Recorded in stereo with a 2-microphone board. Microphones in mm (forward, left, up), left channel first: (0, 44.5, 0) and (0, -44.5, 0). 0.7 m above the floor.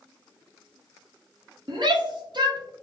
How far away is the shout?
About 0.8 m.